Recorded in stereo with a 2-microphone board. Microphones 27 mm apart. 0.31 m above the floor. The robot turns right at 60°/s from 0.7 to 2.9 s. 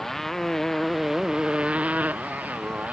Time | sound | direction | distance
0.0 | a motorcycle | 170° left | ?